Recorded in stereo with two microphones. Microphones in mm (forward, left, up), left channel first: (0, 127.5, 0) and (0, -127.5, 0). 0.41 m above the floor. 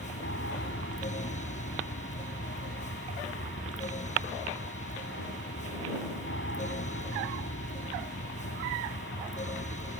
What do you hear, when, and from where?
0.0 s an aircraft: 50° left (ahead or behind)